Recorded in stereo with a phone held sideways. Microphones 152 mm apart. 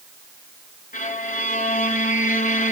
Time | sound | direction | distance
0.9 | a violin | 65° left (ahead or behind) | 2.5 m